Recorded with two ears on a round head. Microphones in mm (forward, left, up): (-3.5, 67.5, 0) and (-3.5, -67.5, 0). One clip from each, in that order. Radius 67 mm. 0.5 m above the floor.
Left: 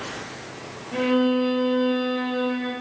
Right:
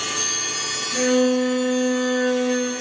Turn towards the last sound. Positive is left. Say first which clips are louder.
# right 2 dB
turn(degrees=-45)  # may be behind; listen again after turning